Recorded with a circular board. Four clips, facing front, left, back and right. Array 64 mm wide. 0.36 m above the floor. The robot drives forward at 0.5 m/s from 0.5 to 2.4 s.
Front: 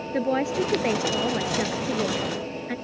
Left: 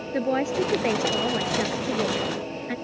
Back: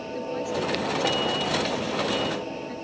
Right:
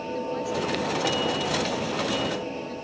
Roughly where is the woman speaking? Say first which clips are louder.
Left 6 dB, front 6 dB; ahead left.